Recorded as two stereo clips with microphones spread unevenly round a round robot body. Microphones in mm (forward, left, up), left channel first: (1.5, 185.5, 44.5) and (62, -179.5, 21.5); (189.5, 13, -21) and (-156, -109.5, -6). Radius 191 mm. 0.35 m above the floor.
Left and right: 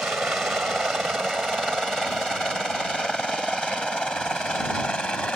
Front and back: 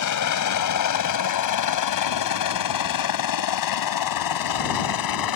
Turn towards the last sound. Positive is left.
turn(degrees=10)